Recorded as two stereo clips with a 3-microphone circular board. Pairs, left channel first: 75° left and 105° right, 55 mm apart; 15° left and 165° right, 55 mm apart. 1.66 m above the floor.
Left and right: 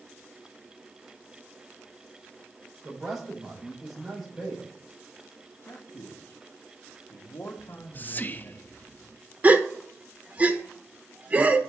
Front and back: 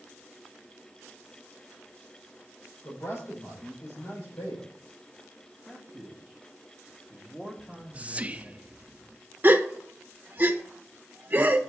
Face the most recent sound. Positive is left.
turn(degrees=-145)